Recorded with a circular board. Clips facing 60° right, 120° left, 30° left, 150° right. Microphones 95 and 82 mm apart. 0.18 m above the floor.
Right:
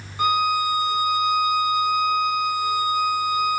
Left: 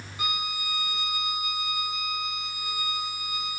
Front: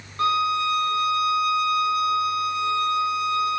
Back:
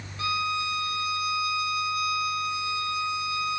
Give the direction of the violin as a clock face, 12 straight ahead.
12 o'clock.